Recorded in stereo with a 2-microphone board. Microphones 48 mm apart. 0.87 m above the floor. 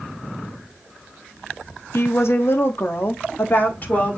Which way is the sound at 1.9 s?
65° left (ahead or behind).